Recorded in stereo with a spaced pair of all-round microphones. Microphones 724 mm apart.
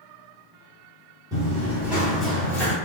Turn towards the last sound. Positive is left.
turn(degrees=5)  # may be behind; listen again after turning